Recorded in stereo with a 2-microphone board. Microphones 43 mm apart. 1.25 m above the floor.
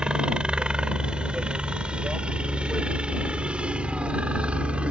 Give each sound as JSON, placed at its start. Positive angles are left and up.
{"t": 0.0, "sound": "a helicopter", "side_deg": -20}